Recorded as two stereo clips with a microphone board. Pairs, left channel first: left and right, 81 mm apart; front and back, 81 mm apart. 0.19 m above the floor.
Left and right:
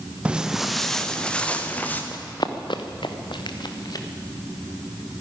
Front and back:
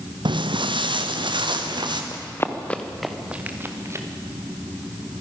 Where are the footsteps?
165° right, 1.1 m; by 2.0 s 160° left, 2 m.